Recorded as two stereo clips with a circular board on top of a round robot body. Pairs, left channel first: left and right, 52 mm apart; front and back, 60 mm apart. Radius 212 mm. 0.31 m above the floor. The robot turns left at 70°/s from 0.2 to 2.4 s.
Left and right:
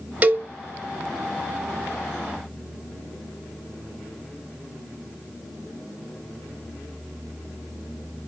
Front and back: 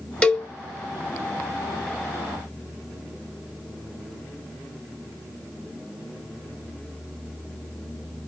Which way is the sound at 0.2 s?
60° right.